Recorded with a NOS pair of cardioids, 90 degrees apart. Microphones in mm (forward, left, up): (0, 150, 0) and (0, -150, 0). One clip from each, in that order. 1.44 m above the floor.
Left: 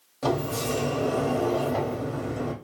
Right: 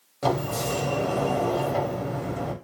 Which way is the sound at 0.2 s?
10° right.